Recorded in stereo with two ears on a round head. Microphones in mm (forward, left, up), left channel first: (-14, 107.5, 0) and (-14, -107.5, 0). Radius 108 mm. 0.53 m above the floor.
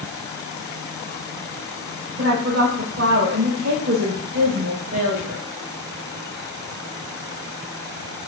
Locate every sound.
2.2 s a woman speaking: 45° right (ahead or behind), 2.5 m